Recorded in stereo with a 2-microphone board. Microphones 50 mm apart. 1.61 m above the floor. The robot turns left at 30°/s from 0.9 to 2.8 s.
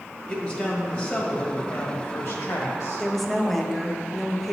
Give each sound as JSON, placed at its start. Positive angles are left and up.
{"t": 0.3, "sound": "a man speaking", "azimuth_deg": 150, "distance_m": 1.5}
{"t": 3.0, "sound": "a woman speaking", "side_deg": 5, "distance_m": 0.6}